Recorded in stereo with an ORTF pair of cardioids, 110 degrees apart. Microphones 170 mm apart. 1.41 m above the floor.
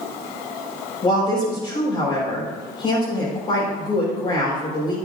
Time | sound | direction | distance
1.0 | a woman speaking | 35° left | 5 m